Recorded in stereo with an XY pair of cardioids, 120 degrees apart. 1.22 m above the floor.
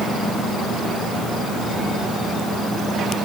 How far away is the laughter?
No laughter in this recording.